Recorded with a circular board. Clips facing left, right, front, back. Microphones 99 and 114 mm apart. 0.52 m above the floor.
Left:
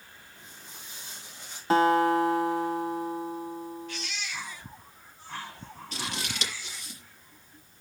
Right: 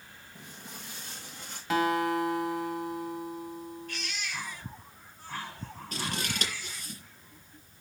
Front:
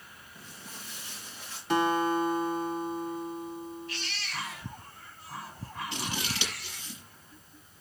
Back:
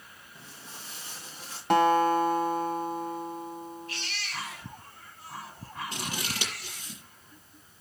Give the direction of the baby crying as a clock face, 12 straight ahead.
4 o'clock.